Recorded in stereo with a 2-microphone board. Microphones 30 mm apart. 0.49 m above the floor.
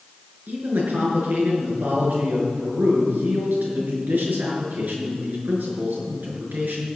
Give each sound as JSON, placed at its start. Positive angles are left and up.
{"t": 0.5, "sound": "a man speaking", "side_deg": -75, "distance_m": 6.0}